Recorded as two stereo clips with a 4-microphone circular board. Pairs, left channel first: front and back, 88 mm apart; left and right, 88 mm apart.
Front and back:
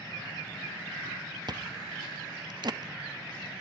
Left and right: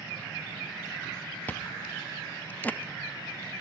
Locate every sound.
1.5 s chewing: 155° left, 0.7 m